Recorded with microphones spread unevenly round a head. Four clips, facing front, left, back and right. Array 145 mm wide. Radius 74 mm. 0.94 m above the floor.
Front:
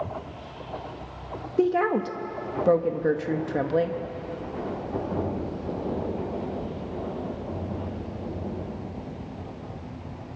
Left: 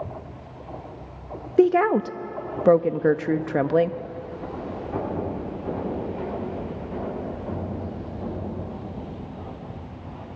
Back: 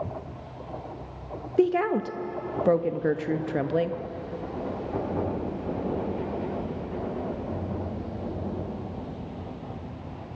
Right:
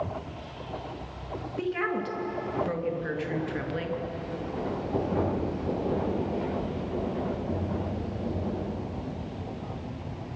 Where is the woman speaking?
75° left, 0.8 m.